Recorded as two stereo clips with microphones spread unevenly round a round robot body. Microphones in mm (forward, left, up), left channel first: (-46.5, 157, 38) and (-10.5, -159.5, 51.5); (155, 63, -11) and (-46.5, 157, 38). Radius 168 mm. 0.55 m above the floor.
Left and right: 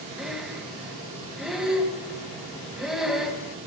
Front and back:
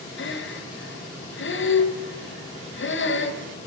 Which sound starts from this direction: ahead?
Breathing, at 0.2 s.